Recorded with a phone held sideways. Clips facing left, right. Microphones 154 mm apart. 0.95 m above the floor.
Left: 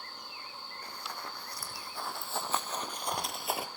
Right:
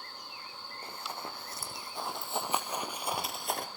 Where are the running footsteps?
25° right (ahead or behind), 2.5 m; by 3.7 s 10° left (ahead or behind), 0.9 m.